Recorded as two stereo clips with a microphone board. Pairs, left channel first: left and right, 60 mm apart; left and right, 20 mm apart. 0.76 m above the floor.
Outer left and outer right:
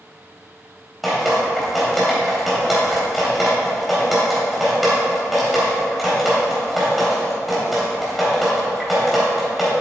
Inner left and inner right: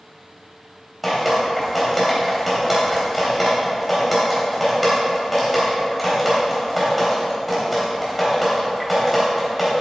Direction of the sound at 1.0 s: 5° right (ahead or behind).